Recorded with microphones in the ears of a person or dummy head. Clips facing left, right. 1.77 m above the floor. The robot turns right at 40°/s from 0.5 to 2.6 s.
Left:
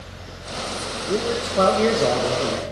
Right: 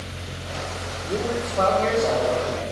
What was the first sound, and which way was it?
A man speaking, 30° left.